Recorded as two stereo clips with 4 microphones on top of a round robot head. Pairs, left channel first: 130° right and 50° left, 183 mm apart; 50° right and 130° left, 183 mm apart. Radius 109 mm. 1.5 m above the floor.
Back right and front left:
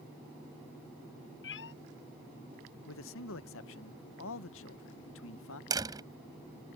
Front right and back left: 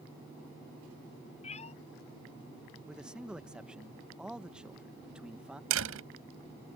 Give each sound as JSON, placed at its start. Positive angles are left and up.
{"t": 1.4, "sound": "a cat meowing", "azimuth_deg": -110}
{"t": 2.9, "sound": "a man speaking", "azimuth_deg": -145}
{"t": 5.7, "sound": "a door slam", "azimuth_deg": 120}